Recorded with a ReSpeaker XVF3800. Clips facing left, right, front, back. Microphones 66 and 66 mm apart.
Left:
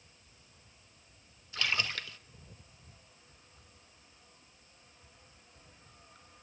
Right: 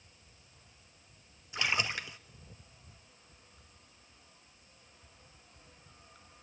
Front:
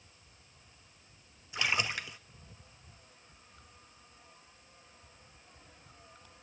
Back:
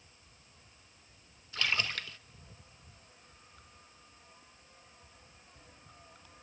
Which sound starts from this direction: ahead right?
A splash, at 1.5 s.